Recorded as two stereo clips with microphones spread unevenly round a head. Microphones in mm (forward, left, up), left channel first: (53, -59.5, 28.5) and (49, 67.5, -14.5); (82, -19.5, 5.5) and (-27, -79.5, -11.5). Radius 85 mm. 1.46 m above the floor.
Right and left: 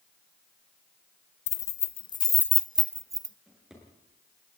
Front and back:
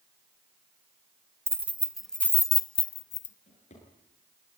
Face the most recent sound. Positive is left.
turn(degrees=5)